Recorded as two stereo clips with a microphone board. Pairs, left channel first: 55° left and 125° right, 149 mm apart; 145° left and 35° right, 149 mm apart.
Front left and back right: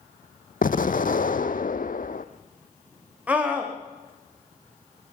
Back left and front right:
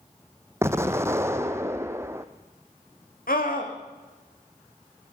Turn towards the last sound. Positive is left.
turn(degrees=155)